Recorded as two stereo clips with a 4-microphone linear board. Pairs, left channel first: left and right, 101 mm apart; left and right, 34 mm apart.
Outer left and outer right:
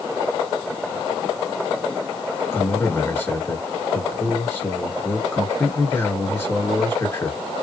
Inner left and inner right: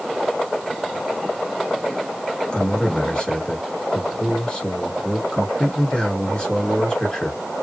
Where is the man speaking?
25° left (ahead or behind), 1.5 m.